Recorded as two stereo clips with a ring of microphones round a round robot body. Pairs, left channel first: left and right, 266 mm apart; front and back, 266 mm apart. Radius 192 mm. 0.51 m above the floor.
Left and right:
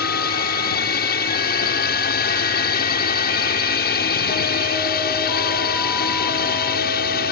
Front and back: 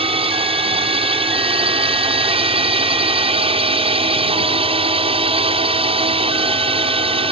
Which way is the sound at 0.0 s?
125° left.